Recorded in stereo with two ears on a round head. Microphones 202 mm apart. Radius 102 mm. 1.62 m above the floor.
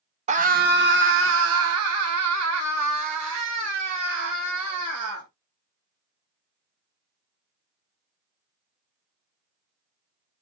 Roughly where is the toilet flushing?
I don't hear a toilet flushing.